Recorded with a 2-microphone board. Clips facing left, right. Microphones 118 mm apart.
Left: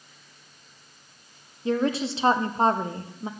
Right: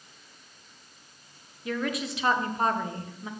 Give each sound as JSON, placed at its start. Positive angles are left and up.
{"t": 1.6, "sound": "a woman speaking", "side_deg": 30, "distance_m": 0.6}